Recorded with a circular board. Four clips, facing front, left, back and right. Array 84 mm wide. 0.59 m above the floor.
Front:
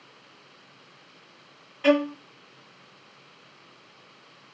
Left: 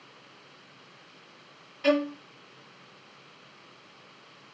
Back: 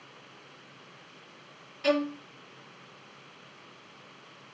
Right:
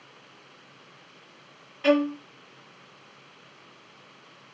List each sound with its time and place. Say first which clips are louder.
1.8 s a violin: right 3 dB, front 5 dB; 25° right, 0.7 m